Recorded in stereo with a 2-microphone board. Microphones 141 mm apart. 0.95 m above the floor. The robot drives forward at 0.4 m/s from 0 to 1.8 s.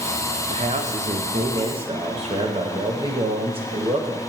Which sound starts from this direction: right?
A man speaking, at 0.5 s.